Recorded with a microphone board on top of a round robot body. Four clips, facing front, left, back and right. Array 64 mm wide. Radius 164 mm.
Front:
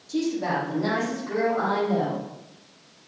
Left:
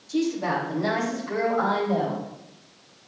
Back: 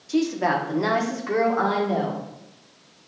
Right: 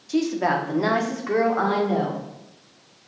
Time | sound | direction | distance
0.1 | a woman speaking | 130° right | 1.6 m